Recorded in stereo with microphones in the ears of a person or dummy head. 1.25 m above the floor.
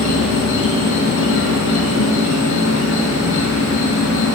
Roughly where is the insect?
Left.